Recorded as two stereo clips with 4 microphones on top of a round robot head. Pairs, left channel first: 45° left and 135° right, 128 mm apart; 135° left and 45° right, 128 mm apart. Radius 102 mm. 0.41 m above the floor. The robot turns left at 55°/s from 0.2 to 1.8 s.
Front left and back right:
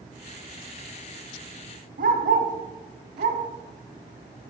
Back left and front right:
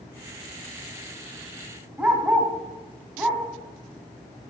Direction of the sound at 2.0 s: 130° right.